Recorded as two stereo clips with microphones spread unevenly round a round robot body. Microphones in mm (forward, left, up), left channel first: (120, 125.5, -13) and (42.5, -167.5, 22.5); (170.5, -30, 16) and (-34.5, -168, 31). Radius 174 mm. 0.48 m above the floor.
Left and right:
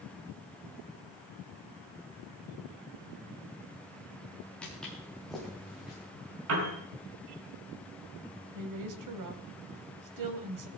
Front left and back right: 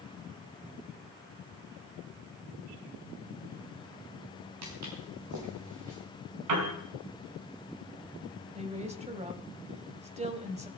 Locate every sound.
4.6 s footsteps: 165° left, 4 m
6.5 s a piano: 160° right, 4.5 m
8.6 s a woman speaking: 80° right, 3 m